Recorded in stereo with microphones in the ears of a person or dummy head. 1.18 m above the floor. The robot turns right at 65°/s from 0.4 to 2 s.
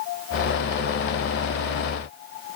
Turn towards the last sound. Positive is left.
No sound to turn to.